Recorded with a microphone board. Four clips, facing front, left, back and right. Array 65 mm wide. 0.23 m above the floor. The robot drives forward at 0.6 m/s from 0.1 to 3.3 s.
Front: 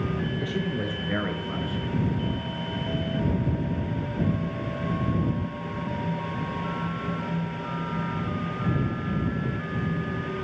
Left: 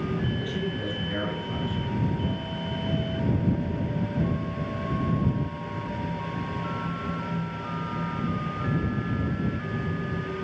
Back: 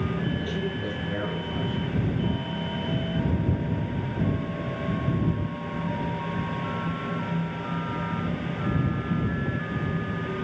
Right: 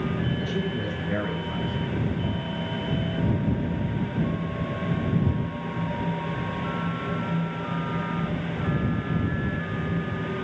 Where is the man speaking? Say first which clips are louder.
Right 2 dB, front 1 dB; 15° right, 4.5 m.